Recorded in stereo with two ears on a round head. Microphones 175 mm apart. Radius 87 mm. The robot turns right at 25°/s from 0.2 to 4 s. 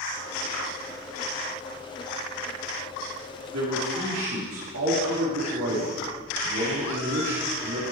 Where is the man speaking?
90° right, 2 m; by 7.8 s 80° right, 2 m.